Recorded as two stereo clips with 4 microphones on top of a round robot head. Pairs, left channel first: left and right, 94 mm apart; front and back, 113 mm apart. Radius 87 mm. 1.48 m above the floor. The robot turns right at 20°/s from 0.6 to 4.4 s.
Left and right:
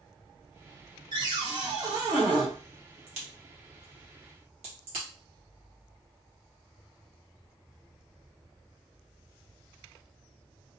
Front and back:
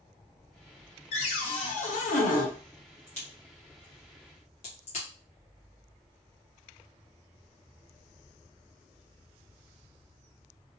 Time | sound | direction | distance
1.1 | a cupboard door | 35° right | 0.8 m
3.1 | a crack | 75° right | 1.2 m